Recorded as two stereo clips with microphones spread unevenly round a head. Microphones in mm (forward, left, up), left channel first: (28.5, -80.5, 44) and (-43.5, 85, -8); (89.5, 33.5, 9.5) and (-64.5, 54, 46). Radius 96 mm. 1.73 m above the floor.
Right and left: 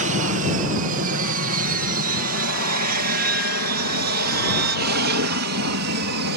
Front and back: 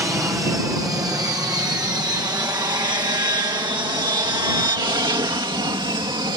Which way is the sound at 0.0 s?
95° left.